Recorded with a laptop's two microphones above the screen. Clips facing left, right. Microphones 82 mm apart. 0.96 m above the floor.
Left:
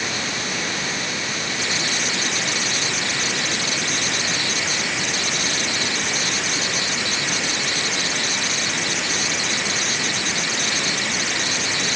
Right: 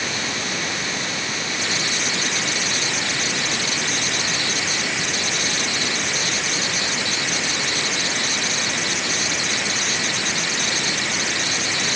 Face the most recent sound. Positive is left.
No sound to turn to.